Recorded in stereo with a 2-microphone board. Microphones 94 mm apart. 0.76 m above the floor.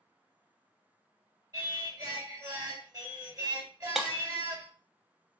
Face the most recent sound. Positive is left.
turn(degrees=-5)  # may be behind; listen again after turning